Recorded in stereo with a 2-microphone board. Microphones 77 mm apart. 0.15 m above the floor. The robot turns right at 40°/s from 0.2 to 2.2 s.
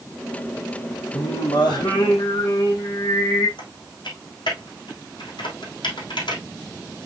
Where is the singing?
85° left, 3.5 m; by 3.5 s 125° left, 3.5 m.